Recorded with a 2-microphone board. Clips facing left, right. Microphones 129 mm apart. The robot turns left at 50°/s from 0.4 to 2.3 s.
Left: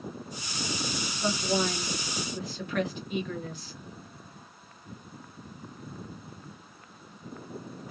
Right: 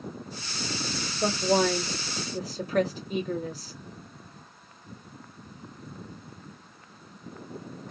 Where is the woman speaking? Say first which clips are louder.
Right 5 dB; 90° right, 1.1 m; by 3.7 s 35° right (ahead or behind), 1.1 m.